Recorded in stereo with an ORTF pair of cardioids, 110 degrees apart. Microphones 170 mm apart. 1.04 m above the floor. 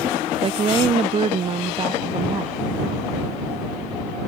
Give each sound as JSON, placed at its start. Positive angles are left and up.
{"t": 0.4, "sound": "a woman speaking", "azimuth_deg": -35}